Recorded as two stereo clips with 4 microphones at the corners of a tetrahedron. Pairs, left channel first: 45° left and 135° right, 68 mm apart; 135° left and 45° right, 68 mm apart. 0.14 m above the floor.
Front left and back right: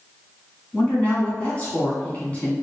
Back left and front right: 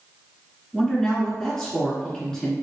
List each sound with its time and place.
0.7 s a woman speaking: 70° left, 1.7 m